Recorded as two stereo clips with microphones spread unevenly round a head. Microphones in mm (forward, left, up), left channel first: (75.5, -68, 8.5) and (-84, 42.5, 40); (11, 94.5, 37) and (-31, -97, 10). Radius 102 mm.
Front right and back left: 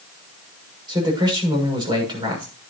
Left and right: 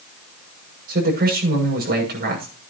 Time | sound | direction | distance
0.9 | a man speaking | 150° right | 6.5 m